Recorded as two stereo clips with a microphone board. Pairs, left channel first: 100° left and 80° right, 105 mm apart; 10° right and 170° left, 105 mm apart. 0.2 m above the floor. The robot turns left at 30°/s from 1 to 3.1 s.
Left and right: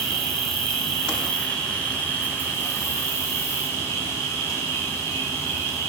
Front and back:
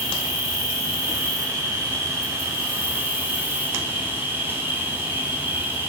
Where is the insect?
Straight behind, 0.8 m; by 5.9 s 120° left, 0.8 m.